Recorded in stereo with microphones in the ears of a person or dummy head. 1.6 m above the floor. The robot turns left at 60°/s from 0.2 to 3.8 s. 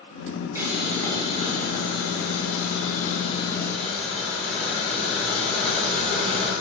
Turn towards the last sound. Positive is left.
turn(degrees=5)